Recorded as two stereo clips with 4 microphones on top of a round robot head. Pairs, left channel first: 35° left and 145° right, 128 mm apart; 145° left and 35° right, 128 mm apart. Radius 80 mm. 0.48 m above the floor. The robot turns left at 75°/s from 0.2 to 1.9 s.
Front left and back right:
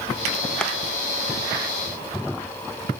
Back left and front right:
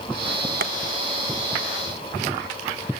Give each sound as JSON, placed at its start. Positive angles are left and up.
{"t": 0.6, "sound": "tapping", "azimuth_deg": -45, "distance_m": 1.0}